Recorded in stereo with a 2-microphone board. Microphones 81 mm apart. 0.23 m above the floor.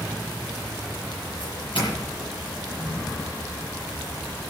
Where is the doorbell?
75° left (ahead or behind), 9.5 m.